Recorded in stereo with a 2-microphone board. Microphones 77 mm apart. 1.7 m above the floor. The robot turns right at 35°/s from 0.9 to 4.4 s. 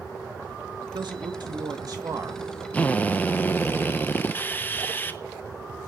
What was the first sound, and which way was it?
A man speaking, 95° right.